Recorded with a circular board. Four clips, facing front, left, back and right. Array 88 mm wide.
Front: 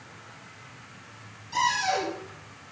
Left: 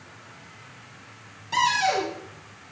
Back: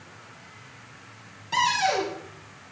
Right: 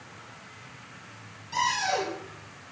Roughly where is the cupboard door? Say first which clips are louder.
Left 5 dB, back 2 dB; behind left.